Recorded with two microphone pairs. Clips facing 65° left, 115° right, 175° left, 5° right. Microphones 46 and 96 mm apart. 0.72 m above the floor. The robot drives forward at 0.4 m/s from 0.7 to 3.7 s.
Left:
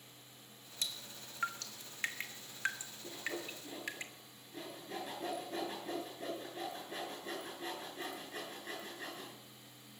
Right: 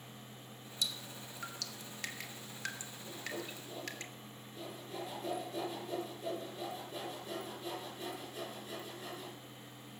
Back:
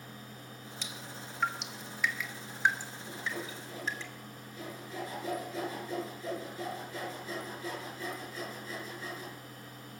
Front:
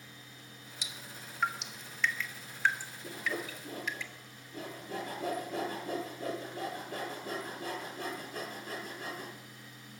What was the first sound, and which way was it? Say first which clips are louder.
Dripping: right 3 dB, back 2 dB; 65° left.